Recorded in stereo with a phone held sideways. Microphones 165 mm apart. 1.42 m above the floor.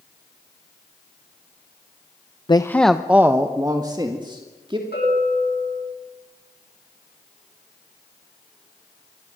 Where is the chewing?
I don't hear chewing.